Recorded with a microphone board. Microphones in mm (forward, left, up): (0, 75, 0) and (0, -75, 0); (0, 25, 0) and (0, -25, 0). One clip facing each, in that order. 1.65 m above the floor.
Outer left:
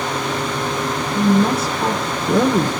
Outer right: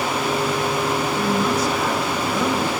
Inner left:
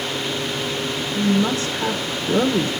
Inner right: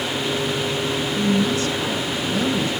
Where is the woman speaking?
55° left (ahead or behind), 1.6 m.